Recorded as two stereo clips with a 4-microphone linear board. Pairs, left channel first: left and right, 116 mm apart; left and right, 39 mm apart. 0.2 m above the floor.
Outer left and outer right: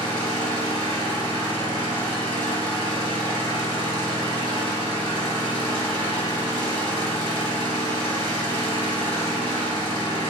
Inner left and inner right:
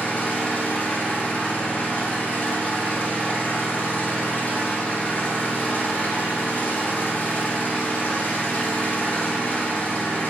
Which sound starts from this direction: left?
An engine running, at 0.0 s.